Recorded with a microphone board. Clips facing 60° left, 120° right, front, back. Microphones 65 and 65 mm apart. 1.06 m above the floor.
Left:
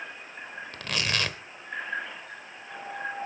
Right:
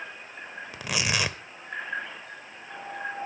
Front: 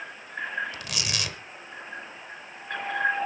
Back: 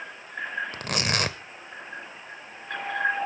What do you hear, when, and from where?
0.7 s tearing paper: 165° left, 1.0 m